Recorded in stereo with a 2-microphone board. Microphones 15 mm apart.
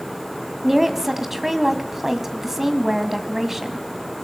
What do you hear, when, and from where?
0.6 s a woman speaking: 15° right (ahead or behind), 1.8 m